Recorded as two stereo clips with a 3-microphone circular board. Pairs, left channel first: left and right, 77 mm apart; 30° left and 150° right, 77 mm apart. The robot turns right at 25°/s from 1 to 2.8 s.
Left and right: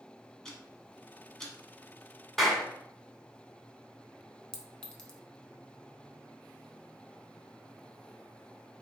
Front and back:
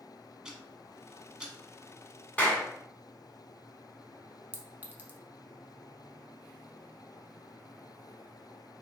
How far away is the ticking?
About 0.9 m.